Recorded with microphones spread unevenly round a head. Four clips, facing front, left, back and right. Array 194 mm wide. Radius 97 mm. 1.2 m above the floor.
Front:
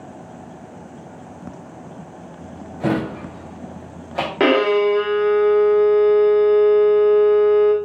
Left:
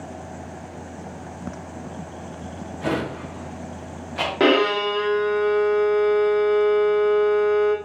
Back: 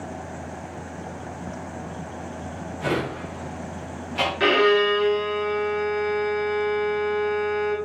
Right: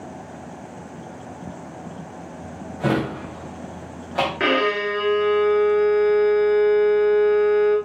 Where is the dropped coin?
I don't hear a dropped coin.